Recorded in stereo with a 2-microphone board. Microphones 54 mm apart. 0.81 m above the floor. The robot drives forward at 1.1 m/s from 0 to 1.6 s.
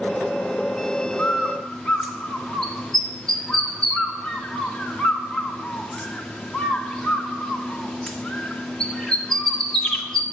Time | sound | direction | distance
1.2 | a bird | 15° left (ahead or behind) | 1.0 m